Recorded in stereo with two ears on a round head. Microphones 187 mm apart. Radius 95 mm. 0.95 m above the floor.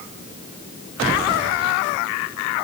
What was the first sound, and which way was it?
Only background noise.